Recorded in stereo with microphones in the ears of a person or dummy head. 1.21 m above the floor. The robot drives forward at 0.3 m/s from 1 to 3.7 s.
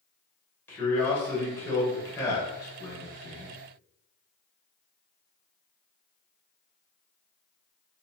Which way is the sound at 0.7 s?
15° left (ahead or behind).